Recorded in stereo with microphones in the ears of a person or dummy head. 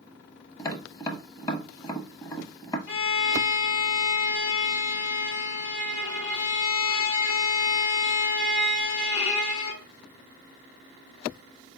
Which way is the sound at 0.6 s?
20° left (ahead or behind).